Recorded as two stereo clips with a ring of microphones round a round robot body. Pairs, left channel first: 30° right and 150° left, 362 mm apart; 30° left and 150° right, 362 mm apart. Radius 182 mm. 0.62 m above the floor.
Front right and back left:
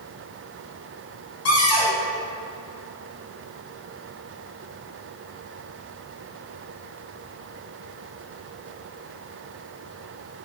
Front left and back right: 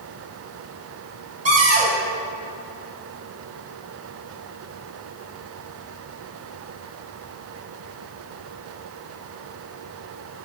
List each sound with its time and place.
1.4 s a cupboard door: 80° right, 2.5 m